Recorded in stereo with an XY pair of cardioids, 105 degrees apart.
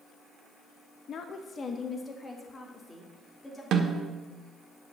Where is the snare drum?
65° right, 1.4 m.